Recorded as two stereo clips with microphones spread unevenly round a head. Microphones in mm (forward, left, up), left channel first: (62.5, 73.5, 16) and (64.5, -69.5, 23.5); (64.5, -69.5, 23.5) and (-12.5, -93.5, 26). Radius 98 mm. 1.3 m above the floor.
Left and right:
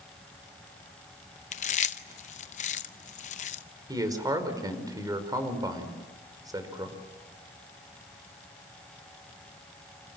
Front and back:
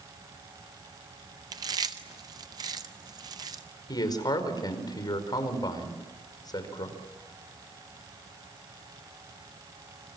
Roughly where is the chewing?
Behind left.